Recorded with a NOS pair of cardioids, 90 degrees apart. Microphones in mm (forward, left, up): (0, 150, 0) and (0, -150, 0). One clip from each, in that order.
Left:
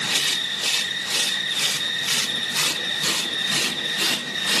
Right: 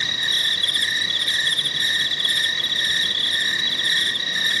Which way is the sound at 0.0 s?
65° right.